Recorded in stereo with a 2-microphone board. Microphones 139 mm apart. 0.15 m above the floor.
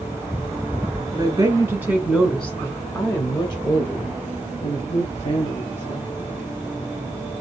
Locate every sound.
1.1 s a woman speaking: 30° right (ahead or behind), 1.5 m; by 6.3 s 50° left (ahead or behind), 3.5 m